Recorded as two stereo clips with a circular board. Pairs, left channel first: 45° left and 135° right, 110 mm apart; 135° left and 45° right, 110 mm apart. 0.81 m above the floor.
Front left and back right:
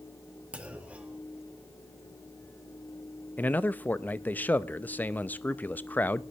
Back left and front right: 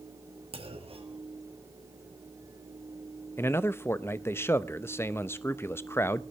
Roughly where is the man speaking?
Left.